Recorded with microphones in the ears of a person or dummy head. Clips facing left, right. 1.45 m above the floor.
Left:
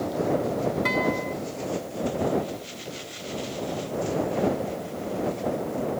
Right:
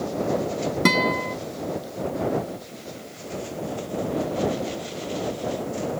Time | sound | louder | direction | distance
0.8 | a guitar | right 3 dB | 55° right (ahead or behind) | ?